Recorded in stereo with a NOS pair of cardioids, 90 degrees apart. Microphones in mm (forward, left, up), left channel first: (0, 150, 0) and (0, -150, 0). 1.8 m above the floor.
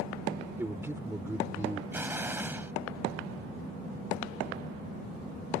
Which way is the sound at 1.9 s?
5° right.